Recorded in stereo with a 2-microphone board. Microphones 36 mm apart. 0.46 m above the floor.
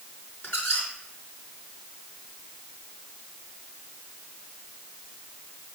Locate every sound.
0.4 s a squeak: 80° left, 4 m